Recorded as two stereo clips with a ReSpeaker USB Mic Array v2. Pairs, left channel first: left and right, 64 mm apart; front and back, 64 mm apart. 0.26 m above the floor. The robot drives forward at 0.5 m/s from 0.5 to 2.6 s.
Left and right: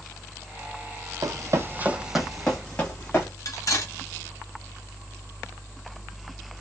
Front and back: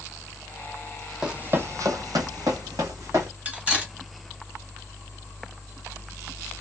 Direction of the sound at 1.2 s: 100° right.